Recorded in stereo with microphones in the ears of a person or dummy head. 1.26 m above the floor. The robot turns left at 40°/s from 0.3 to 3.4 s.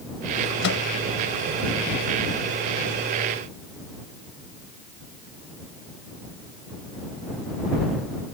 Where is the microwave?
60° left (ahead or behind); by 0.8 s 70° left (ahead or behind).